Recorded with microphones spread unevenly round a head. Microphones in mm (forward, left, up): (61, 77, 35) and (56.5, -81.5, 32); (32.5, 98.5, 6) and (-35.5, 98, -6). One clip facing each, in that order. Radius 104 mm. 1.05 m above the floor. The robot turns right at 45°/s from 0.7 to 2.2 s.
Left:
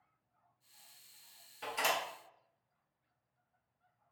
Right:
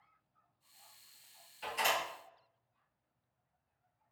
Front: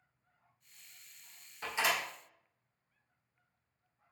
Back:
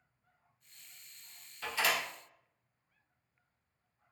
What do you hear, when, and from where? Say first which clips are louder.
1.6 s a door slam: even, even; 60° left, 1.9 m; by 2.0 s 80° left, 1.9 m